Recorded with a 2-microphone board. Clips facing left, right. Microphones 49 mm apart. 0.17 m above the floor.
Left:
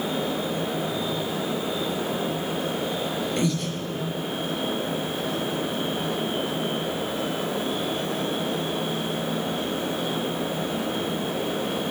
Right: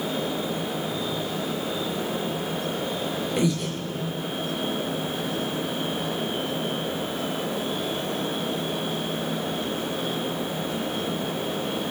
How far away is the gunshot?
No gunshot in this recording.